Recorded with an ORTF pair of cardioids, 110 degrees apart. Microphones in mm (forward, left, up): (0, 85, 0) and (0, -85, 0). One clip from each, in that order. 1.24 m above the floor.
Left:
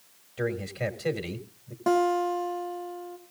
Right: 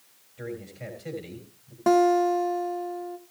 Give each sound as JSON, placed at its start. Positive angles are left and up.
{"t": 0.4, "sound": "a man speaking", "azimuth_deg": 60, "distance_m": 3.0}
{"t": 1.9, "sound": "a guitar", "azimuth_deg": -20, "distance_m": 1.3}